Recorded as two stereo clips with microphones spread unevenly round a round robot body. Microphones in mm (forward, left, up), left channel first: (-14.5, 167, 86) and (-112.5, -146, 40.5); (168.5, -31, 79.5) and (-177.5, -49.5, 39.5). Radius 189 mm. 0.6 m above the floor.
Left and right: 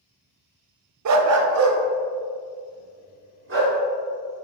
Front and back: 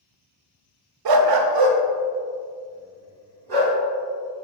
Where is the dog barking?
150° right, 0.7 m; by 3.8 s 160° right, 3.5 m.